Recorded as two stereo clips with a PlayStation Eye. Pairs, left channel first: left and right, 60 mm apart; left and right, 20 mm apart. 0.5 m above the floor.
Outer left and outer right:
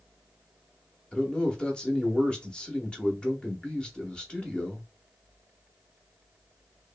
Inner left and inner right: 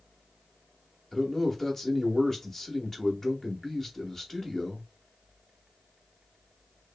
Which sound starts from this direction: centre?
A man speaking, at 1.1 s.